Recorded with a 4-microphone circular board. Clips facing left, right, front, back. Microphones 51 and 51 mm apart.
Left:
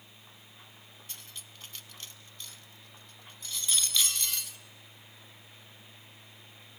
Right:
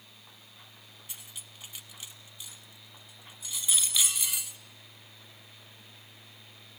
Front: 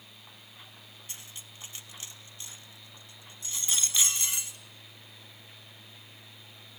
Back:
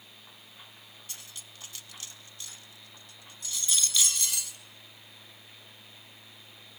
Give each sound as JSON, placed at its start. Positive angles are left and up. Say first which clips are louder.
{"t": 1.1, "sound": "cutlery clinking", "louder": "even, even", "azimuth_deg": -20, "distance_m": 0.7}